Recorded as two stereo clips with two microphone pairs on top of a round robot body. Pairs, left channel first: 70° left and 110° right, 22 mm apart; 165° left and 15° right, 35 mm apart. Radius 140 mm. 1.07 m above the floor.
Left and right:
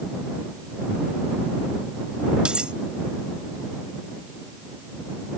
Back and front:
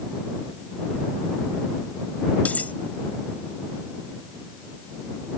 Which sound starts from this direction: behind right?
Cutlery clinking, at 2.5 s.